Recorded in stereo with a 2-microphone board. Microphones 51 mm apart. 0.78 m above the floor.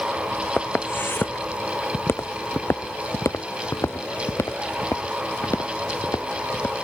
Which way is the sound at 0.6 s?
40° left (ahead or behind).